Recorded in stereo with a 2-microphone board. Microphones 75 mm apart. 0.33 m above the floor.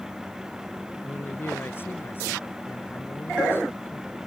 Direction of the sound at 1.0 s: 30° left (ahead or behind).